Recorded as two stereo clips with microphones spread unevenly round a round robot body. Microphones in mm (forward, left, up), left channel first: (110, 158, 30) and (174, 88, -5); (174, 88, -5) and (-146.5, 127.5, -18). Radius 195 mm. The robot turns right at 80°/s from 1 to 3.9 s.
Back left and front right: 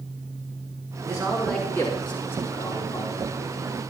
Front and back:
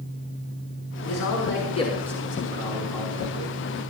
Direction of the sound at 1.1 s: 5° left.